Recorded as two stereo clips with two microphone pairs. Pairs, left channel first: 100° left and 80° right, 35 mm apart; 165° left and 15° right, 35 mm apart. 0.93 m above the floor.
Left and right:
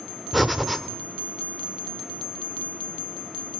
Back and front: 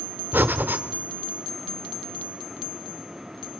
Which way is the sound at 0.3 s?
10° left.